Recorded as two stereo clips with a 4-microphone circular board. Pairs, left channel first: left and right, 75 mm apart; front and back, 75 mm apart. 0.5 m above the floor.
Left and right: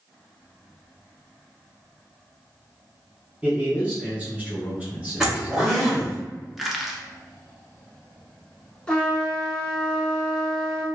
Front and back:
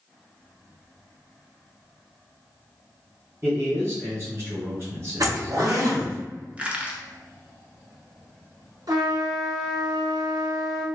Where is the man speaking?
155° right, 1.7 m.